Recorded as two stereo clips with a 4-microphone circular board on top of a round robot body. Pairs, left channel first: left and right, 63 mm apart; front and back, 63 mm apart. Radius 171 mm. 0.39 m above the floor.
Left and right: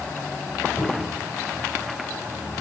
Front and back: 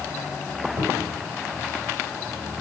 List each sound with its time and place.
0.8 s a cupboard door: 155° left, 2.5 m